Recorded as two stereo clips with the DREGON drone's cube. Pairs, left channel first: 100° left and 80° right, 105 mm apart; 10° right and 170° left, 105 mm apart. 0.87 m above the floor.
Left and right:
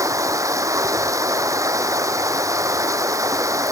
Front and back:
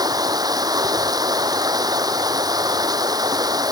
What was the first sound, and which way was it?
Running water, 140° right.